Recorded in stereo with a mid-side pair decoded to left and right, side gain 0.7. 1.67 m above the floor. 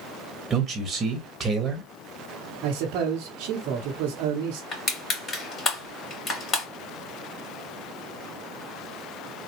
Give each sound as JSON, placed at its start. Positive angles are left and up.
{"t": 0.5, "sound": "a man speaking", "azimuth_deg": -25, "distance_m": 1.2}
{"t": 2.6, "sound": "a man speaking", "azimuth_deg": -65, "distance_m": 1.0}
{"t": 4.7, "sound": "crushing", "azimuth_deg": 30, "distance_m": 2.5}